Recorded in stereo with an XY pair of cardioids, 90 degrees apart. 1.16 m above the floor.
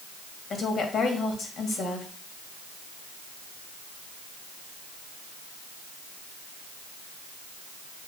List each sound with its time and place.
0.5 s a woman speaking: 65° left, 2.0 m